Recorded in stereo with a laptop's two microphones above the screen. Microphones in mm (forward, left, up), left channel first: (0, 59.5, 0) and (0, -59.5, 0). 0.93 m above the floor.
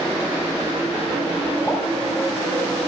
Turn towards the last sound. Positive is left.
turn(degrees=10)  # may be behind; listen again after turning